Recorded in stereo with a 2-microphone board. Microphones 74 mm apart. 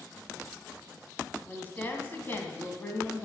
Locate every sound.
1.5 s a woman speaking: 25° left (ahead or behind), 1.7 m